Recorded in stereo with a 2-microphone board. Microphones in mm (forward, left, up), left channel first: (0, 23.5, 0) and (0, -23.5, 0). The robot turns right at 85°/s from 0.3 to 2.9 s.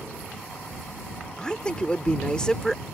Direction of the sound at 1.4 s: 15° left (ahead or behind).